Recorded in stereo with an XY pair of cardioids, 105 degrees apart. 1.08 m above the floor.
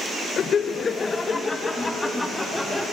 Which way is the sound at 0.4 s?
55° left.